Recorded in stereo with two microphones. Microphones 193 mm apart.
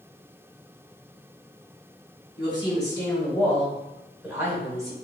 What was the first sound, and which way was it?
A woman speaking, 25° left (ahead or behind).